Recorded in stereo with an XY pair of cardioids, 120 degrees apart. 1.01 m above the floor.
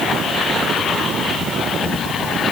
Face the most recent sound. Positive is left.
No sound to turn to.